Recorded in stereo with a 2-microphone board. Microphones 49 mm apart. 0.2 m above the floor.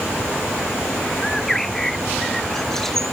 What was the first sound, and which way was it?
A bird, 5° left (ahead or behind).